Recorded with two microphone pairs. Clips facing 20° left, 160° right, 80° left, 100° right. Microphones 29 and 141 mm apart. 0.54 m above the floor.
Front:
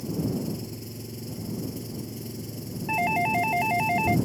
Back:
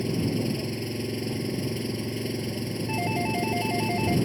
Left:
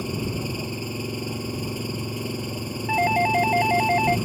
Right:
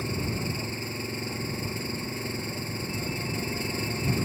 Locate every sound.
0.0 s an engine running: 155° left
2.9 s a doorbell: 80° left